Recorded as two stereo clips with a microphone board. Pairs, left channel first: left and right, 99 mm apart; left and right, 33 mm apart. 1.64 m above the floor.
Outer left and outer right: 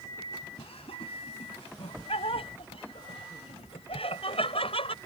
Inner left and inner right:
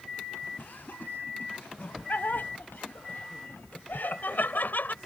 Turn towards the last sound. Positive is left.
turn(degrees=75)  # may be behind; listen again after turning